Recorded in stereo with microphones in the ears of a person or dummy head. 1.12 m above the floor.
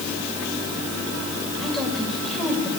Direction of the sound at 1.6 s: 5° left (ahead or behind).